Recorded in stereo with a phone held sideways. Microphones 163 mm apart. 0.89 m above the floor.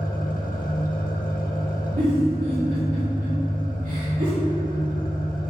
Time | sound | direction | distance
0.0 | an engine running | 65° left (ahead or behind) | 0.9 m
2.0 | a giggle | 65° right (ahead or behind) | 2.5 m